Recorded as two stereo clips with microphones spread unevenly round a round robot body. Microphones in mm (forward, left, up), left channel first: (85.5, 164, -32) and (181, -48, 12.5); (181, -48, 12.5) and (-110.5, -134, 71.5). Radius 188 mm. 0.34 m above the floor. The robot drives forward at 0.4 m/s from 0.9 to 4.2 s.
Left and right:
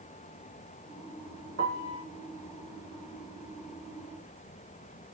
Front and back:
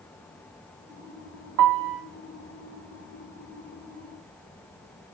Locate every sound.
1.6 s a piano: 140° right, 1.5 m; by 2.0 s 145° right, 1.6 m